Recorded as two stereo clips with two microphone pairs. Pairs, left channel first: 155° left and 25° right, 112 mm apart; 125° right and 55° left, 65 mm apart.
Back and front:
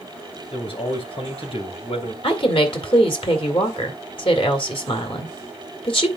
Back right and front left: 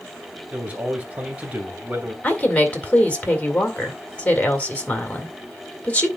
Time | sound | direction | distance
0.5 | a man speaking | 120° left | 2.5 m
2.2 | a woman speaking | 170° left | 2 m